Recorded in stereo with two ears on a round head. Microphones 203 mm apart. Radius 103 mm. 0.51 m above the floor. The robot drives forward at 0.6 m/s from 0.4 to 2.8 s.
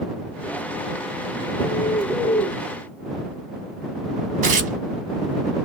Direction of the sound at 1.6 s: 10° left (ahead or behind).